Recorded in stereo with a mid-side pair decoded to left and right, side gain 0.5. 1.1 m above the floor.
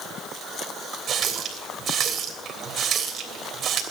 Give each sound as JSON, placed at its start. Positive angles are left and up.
{"t": 1.1, "sound": "a running tap", "azimuth_deg": -50, "distance_m": 3.0}